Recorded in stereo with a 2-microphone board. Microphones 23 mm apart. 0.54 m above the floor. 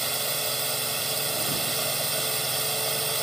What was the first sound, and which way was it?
A drone, centre (ahead or behind).